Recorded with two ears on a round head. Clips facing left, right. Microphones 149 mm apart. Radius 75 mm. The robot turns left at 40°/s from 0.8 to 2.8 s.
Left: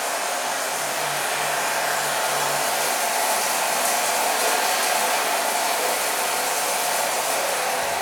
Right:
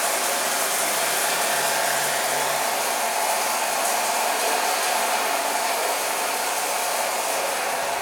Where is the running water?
100° right, 1.3 m; by 8.0 s straight behind, 1.3 m.